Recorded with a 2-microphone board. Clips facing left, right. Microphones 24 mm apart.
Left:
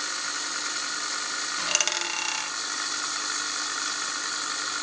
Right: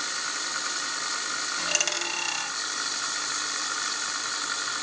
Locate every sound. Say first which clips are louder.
1.6 s a dropped coin: left 1 dB; 25° left (ahead or behind), 0.7 m